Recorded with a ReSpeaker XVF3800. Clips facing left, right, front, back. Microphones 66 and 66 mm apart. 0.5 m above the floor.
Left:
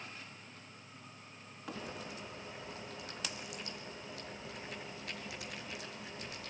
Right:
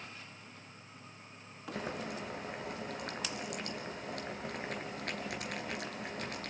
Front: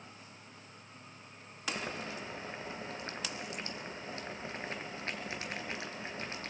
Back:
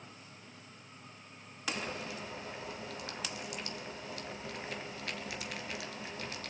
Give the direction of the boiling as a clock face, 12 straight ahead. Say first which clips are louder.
Right 7 dB, front 1 dB; 2 o'clock.